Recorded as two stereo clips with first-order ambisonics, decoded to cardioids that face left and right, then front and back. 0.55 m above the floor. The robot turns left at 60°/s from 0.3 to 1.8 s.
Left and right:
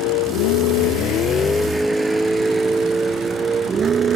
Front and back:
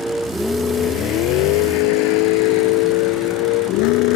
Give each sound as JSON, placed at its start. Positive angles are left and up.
{"t": 0.0, "sound": "a vehicle", "azimuth_deg": 100}